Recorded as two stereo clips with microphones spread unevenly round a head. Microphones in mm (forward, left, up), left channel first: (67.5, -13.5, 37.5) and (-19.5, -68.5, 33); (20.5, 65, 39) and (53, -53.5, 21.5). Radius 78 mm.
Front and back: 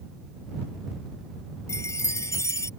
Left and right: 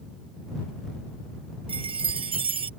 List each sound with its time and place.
1.7 s a chime: 30° right